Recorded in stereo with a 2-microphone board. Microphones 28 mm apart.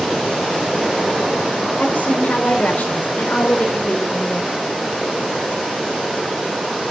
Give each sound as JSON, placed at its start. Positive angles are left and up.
{"t": 1.8, "sound": "a woman speaking", "side_deg": 65, "distance_m": 4.5}